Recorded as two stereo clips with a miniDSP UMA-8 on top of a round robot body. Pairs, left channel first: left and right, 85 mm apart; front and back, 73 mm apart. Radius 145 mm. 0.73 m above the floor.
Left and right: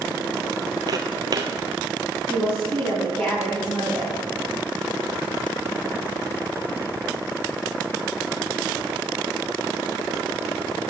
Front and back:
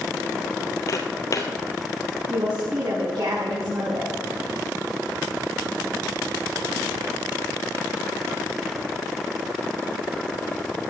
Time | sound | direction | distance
0.9 | footsteps | 45° right | 1.2 m
2.3 | a woman speaking | 155° left | 6 m